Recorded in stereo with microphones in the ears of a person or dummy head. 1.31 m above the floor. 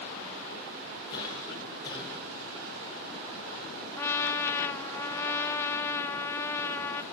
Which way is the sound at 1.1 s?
35° left (ahead or behind).